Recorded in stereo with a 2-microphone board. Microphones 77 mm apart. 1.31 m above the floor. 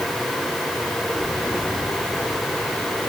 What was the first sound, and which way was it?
Only background noise.